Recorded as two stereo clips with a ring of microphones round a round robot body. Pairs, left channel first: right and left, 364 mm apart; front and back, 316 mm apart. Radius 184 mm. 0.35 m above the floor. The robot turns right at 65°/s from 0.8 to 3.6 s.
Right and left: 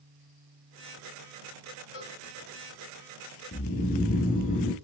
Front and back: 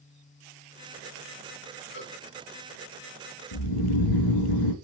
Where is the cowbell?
60° right, 2 m; by 2.2 s 45° right, 2 m.